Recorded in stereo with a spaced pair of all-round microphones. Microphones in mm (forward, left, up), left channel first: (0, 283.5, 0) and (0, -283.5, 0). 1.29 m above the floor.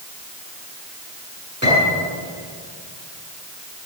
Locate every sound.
1.6 s a piano: 20° left (ahead or behind), 7 m